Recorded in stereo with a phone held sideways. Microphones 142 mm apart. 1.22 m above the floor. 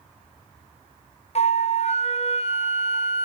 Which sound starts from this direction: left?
A flute, at 1.4 s.